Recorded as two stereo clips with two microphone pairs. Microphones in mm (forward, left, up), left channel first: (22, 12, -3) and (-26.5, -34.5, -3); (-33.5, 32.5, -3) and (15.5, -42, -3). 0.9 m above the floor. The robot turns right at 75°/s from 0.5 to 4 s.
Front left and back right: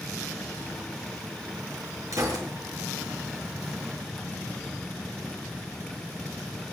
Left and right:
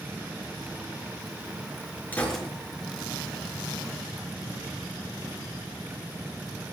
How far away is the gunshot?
About 5 m.